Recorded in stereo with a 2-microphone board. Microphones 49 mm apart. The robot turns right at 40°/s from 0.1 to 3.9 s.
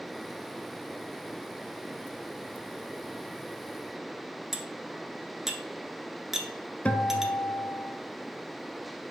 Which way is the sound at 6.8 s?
25° left (ahead or behind).